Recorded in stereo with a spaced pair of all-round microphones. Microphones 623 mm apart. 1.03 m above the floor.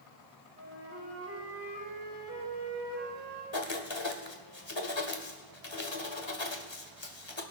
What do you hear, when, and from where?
0.6 s a flute: 25° right (ahead or behind), 6 m
3.5 s writing: 45° left (ahead or behind), 1.6 m